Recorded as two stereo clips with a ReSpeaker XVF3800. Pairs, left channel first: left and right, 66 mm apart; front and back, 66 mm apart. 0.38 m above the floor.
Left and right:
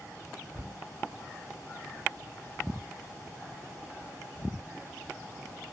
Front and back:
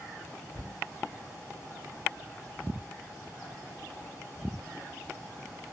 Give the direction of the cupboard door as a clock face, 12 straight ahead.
11 o'clock.